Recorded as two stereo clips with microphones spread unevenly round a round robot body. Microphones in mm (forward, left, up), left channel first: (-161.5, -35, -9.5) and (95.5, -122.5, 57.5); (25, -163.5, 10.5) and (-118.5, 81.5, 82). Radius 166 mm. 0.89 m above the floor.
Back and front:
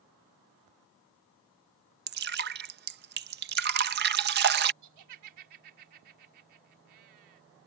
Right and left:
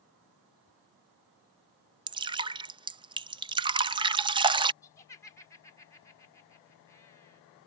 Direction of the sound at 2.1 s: 40° left.